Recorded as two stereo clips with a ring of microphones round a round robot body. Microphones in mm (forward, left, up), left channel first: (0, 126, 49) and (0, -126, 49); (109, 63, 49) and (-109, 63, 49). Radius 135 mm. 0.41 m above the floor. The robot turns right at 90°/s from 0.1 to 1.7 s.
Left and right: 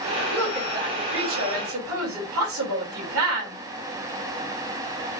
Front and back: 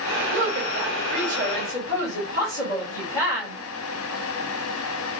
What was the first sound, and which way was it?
A woman speaking, 160° left.